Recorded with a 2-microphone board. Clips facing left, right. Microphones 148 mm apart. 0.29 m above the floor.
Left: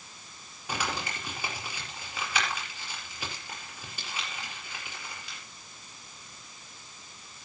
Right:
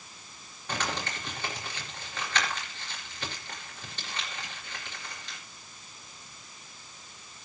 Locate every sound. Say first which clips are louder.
0.7 s crumpling: even; 10° left (ahead or behind), 4.5 m